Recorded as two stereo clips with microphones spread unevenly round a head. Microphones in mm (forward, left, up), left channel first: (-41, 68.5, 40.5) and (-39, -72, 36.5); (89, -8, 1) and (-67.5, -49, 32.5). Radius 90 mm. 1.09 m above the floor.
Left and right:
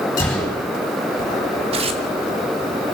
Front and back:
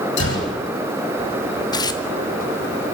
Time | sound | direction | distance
0.2 | a gunshot | 20° left | 9.5 m
1.7 | tearing paper | 45° right | 1.7 m